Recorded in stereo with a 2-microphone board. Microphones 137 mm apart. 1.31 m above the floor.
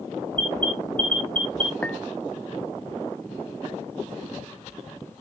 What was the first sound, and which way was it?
An alarm, 80° left.